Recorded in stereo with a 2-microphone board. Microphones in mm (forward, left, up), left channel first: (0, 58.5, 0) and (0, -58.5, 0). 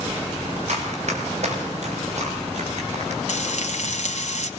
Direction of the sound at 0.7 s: 70° right (ahead or behind).